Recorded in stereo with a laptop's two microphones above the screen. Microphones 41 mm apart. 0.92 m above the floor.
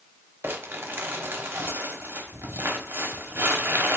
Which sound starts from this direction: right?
Crumpling, at 0.4 s.